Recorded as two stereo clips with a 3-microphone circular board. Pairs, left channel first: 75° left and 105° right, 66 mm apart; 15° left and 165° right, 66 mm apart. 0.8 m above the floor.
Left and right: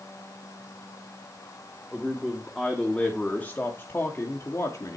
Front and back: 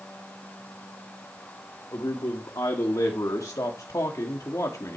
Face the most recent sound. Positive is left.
turn(degrees=50)